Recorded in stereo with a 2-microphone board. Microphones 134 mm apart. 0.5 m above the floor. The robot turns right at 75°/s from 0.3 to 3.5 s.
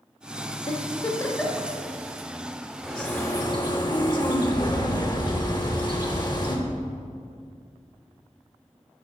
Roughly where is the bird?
Ahead.